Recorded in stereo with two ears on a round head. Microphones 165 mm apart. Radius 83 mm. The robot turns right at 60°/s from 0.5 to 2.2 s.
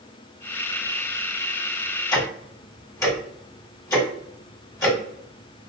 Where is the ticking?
25° left (ahead or behind), 1.3 m; by 5.7 s 20° left (ahead or behind), 1.3 m.